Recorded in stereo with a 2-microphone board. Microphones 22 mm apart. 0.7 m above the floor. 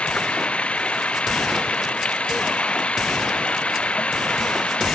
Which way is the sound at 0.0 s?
75° left (ahead or behind).